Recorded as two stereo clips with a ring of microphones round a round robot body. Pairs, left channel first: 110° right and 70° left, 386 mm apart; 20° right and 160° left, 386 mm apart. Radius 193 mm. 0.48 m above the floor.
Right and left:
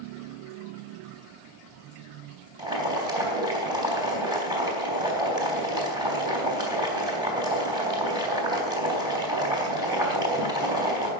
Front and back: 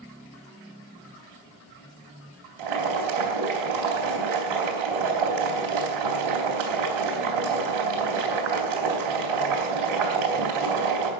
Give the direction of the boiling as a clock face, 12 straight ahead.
7 o'clock.